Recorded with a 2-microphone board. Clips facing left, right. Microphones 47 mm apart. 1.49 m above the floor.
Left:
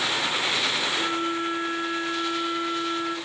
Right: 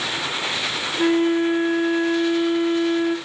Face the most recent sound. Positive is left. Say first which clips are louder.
# right 8 dB
turn(degrees=-55)  # may be behind; listen again after turning